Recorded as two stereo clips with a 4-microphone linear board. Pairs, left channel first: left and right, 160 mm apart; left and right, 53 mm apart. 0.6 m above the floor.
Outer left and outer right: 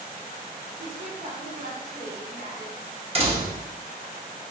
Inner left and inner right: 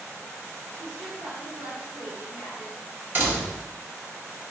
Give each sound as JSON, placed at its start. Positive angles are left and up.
{"t": 0.8, "sound": "a woman speaking", "side_deg": -50, "distance_m": 1.2}
{"t": 3.1, "sound": "a door slam", "side_deg": -40, "distance_m": 0.9}